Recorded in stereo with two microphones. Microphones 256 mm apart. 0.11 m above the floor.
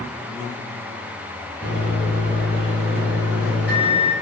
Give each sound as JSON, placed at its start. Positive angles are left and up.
{"t": 1.6, "sound": "a microwave", "side_deg": -10, "distance_m": 1.6}